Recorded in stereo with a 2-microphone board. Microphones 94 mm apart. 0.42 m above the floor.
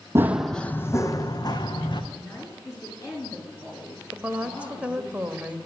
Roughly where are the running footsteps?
Right.